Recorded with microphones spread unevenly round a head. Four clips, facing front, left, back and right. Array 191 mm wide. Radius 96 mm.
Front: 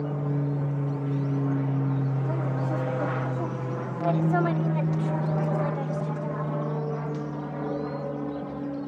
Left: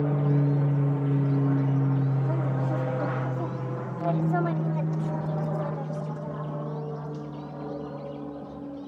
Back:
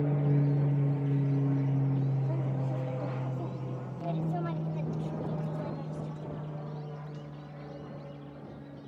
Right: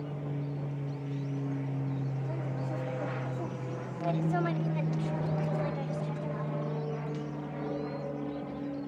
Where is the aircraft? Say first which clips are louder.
Left 12 dB, even; 80° left; by 8.9 s 5° right.